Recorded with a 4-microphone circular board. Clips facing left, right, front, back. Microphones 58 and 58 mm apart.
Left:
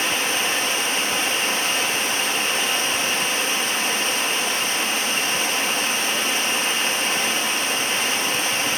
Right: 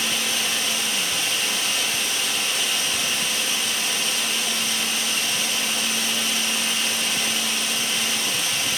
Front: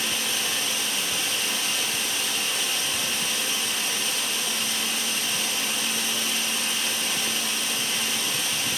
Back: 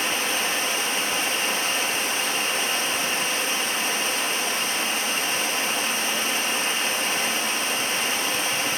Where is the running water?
135° left, 1.0 m.